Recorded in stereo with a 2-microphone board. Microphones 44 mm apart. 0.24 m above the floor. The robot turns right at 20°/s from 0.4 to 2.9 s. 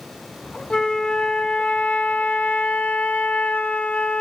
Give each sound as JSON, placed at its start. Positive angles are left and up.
{"t": 0.7, "sound": "a flute", "azimuth_deg": 35, "distance_m": 0.6}